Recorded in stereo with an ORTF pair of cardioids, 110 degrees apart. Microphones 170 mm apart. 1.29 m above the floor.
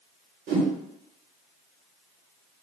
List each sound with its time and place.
0.5 s a whoosh: 65° right, 1.2 m